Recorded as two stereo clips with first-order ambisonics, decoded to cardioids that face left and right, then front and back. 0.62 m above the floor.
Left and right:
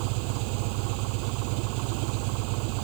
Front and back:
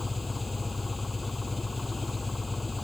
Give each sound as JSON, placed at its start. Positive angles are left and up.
{"t": 0.0, "sound": "an engine running", "azimuth_deg": -80}